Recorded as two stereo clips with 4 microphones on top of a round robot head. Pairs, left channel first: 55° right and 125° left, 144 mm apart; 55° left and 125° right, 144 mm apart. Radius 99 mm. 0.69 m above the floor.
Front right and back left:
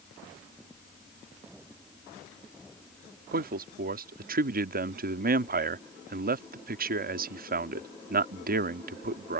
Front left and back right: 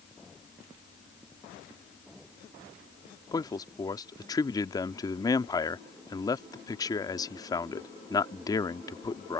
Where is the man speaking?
120° left.